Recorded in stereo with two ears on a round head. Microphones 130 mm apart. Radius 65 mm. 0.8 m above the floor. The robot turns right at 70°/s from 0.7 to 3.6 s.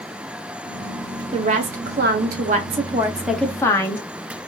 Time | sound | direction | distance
1.3 | a woman speaking | 140° right | 1.0 m